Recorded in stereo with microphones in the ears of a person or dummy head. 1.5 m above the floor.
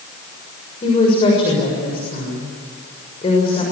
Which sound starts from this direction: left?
A woman speaking, at 0.8 s.